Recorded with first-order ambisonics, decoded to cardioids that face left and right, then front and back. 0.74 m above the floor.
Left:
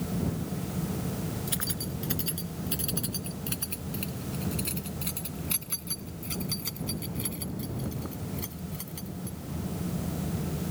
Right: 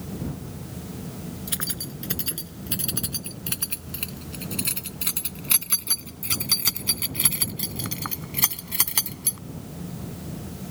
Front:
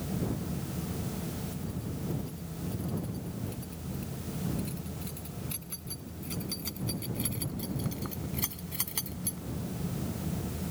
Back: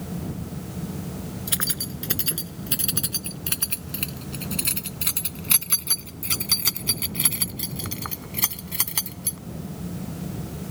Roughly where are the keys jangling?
Behind.